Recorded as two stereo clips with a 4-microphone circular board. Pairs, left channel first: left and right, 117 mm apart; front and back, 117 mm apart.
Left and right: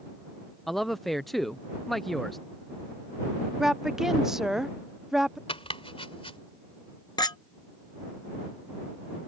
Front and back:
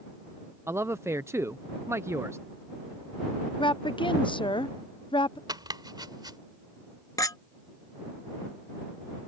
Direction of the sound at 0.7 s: Straight behind.